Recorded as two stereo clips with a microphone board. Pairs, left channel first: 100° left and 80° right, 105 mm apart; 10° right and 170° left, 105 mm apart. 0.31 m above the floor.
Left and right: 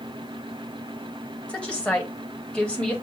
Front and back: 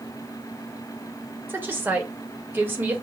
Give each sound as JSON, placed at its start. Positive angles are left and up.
{"t": 1.5, "sound": "a woman speaking", "azimuth_deg": 160, "distance_m": 0.9}